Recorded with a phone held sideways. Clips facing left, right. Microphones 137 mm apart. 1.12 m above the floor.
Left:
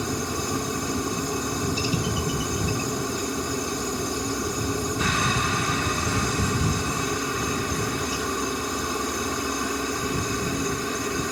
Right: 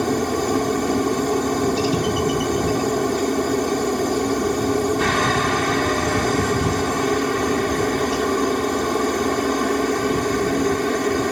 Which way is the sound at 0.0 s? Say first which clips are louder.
Right 8 dB; 70° right (ahead or behind).